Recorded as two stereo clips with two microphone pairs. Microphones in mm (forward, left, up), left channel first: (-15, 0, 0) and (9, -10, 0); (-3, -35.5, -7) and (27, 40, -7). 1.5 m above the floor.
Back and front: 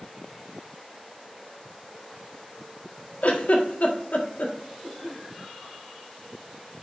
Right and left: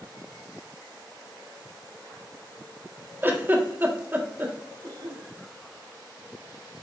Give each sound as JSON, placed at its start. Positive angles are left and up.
{"t": 3.2, "sound": "a giggle", "azimuth_deg": 130, "distance_m": 1.6}
{"t": 4.8, "sound": "a cough", "azimuth_deg": 85, "distance_m": 4.0}